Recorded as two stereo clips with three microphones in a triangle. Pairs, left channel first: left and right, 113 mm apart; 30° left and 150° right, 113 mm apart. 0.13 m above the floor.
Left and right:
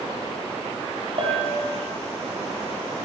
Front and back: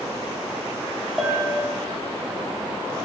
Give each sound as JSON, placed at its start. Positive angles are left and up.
{"t": 1.2, "sound": "a bell", "azimuth_deg": -60, "distance_m": 3.0}